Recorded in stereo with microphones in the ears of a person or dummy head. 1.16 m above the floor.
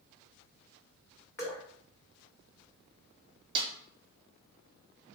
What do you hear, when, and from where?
1.4 s dripping: 20° left (ahead or behind), 1.2 m
3.5 s a snare drum: 25° right (ahead or behind), 1.2 m